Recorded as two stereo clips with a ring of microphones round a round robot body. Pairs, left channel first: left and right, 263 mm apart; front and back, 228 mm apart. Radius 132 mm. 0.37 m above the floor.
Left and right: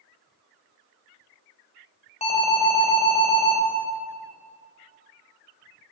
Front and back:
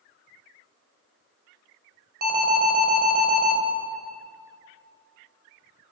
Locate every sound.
2.2 s an alarm: 150° left, 3 m